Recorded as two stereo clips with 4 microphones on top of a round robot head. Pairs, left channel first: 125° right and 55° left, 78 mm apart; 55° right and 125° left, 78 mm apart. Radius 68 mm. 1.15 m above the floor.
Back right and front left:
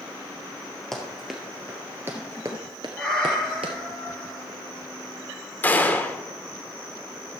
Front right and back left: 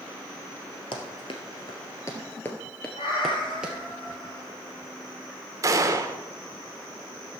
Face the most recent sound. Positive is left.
turn(degrees=170)